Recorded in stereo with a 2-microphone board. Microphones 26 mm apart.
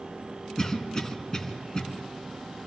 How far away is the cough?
About 2.5 m.